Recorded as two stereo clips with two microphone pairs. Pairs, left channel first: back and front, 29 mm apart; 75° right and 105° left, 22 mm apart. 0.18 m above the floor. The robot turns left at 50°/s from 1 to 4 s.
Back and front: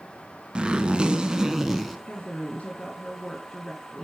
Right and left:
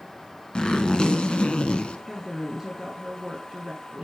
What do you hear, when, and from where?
0.6 s a zipper: 45° right, 1.3 m; by 2.0 s 95° right, 1.3 m
2.1 s a woman speaking: 170° right, 1.5 m; by 4.0 s 95° left, 1.5 m